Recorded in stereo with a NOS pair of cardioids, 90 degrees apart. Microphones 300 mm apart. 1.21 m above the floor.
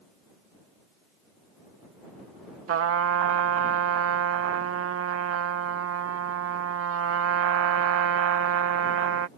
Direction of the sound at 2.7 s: 50° right.